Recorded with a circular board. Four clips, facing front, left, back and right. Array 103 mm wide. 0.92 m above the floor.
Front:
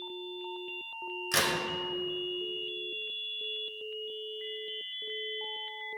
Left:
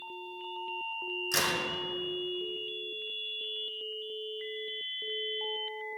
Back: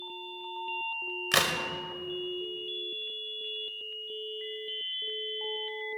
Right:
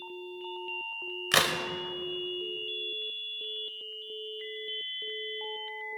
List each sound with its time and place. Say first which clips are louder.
1.3 s a crack: right 5 dB, back 2 dB; 120° right, 0.9 m